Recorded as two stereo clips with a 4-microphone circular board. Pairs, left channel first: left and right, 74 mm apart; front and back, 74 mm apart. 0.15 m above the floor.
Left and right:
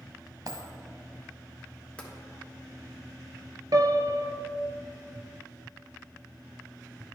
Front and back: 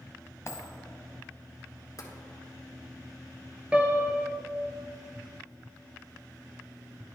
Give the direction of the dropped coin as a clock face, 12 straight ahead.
2 o'clock.